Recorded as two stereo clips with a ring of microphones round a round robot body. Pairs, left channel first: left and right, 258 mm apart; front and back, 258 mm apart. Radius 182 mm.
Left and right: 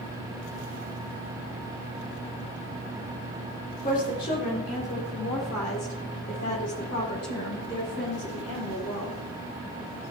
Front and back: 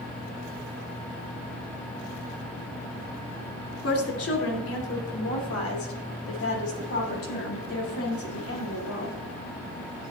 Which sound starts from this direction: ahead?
A woman speaking, at 3.8 s.